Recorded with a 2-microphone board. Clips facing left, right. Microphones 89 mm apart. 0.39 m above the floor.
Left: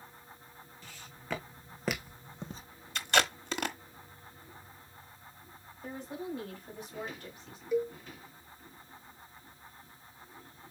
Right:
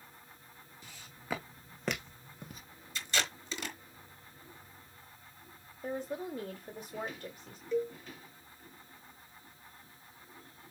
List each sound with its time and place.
0.8 s footsteps: 15° right (ahead or behind), 2 m; by 2.6 s 35° left (ahead or behind), 1.0 m
3.0 s tape being pulled: 65° left (ahead or behind), 1.1 m
5.8 s a woman speaking: 35° right (ahead or behind), 1.6 m
7.7 s a cowbell: 10° left (ahead or behind), 1.1 m